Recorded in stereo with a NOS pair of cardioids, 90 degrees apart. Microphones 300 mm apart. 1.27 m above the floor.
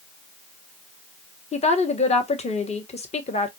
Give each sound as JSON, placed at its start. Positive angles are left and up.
{"t": 1.5, "sound": "a woman speaking", "azimuth_deg": 20, "distance_m": 1.1}